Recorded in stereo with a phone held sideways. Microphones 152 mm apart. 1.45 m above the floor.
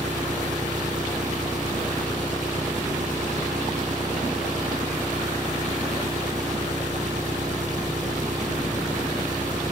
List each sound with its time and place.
0.0 s an engine running: 55° right (ahead or behind), 5 m